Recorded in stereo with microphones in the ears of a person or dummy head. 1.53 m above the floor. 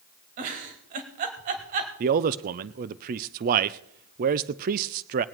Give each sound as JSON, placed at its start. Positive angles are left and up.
{"t": 0.4, "sound": "a giggle", "side_deg": -45, "distance_m": 1.8}
{"t": 2.0, "sound": "a man speaking", "side_deg": -50, "distance_m": 0.5}